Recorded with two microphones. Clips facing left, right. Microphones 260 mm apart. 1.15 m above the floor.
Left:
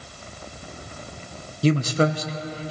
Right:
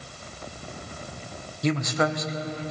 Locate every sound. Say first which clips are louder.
1.6 s a man speaking: left 5 dB; 35° left (ahead or behind), 0.7 m